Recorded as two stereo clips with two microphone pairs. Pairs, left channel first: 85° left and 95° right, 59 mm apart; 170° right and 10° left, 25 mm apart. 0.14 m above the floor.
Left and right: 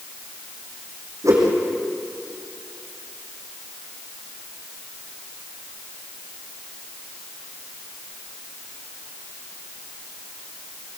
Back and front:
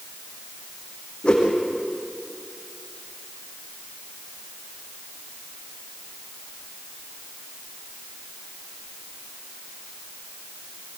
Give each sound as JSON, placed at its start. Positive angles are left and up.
{"t": 1.2, "sound": "a whoosh", "azimuth_deg": -120, "distance_m": 5.0}